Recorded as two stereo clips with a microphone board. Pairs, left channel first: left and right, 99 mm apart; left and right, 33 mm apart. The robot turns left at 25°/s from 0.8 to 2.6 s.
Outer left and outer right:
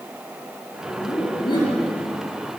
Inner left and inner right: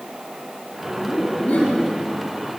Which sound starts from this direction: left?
Laughter, at 0.9 s.